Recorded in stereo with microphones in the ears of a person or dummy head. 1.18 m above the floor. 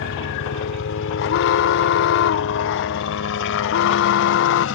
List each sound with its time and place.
0.0 s a helicopter: 65° left (ahead or behind); by 4.8 s 70° left (ahead or behind)
1.2 s an alarm: 65° left (ahead or behind)